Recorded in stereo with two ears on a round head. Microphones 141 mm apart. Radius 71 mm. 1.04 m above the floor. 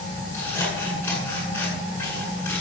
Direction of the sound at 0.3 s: 10° left (ahead or behind).